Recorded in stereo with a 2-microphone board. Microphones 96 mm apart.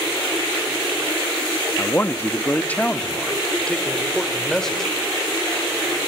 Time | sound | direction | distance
1.8 | a man speaking | 25° left (ahead or behind) | 0.7 m